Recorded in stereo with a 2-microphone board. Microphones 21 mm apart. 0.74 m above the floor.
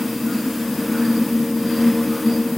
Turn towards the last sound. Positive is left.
No sound to turn to.